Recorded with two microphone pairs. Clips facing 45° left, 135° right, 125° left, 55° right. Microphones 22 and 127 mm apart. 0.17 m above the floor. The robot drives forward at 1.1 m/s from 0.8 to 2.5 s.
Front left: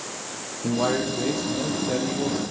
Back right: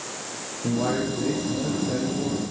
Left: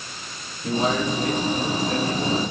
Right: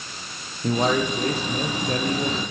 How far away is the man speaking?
About 5 m.